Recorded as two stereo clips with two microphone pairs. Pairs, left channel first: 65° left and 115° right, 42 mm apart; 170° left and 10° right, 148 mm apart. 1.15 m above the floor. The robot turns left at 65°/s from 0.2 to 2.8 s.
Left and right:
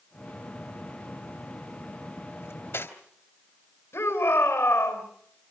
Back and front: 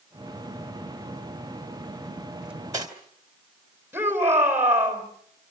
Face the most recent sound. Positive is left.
turn(degrees=70)